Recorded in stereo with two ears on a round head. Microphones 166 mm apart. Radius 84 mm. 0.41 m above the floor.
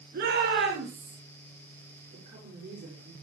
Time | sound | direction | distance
0.1 | a shout | 55° right (ahead or behind) | 5.5 m
2.1 | a woman speaking | 45° right (ahead or behind) | 8 m